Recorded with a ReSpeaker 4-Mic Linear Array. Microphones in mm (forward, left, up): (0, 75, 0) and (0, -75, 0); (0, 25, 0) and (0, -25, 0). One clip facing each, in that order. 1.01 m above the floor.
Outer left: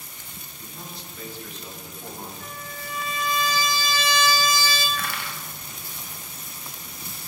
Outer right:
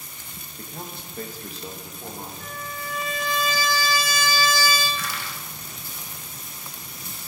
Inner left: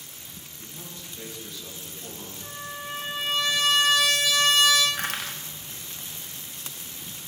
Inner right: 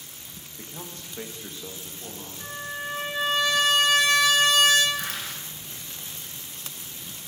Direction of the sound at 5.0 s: 55° left (ahead or behind).